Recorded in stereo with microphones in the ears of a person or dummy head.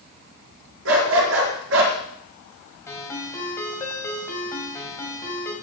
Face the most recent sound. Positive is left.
turn(degrees=20)  # may be behind; listen again after turning